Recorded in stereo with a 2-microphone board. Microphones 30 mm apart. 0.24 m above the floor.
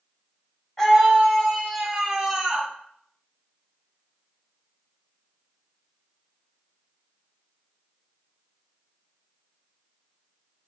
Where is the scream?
25° left (ahead or behind), 1.9 m; by 2.7 s 15° right (ahead or behind), 1.5 m.